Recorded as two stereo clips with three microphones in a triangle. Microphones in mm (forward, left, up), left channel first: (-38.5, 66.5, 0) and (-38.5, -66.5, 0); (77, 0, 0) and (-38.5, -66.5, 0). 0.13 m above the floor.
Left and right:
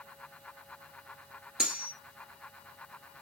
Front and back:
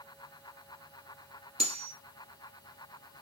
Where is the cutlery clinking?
175° right, 1.4 m.